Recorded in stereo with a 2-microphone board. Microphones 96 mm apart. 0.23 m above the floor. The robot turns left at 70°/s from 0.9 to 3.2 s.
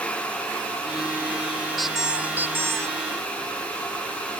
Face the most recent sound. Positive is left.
turn(degrees=-100)